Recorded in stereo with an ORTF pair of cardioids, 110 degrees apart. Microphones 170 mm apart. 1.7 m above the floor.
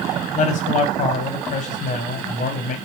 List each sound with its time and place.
0.3 s a man speaking: 50° left, 1.0 m